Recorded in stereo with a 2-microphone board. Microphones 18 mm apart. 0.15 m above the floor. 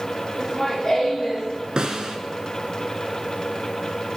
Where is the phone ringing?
I don't hear a phone ringing.